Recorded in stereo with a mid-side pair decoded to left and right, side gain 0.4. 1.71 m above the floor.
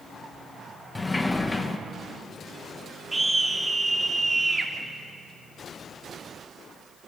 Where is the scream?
20° right, 3.5 m.